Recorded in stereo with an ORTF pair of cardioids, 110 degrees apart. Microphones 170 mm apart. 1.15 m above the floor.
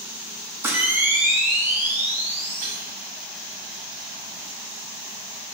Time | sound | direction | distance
0.6 | a camera shutter | 15° right | 1.7 m
2.6 | dishes clattering | 55° right | 2.5 m